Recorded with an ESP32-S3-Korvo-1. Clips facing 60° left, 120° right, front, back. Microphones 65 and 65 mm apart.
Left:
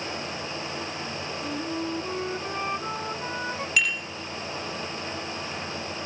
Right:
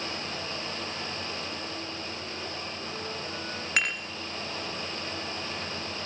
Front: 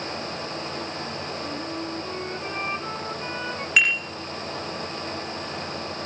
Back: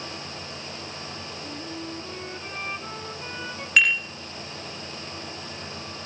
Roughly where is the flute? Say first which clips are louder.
Left 7 dB, front 5 dB; left.